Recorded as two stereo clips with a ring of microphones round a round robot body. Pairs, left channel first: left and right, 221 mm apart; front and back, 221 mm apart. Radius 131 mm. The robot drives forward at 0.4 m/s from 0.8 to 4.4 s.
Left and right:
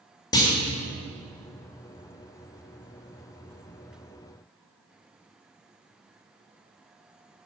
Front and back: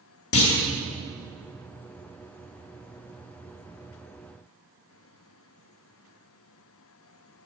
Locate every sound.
0.3 s a clunk: 15° left, 2.0 m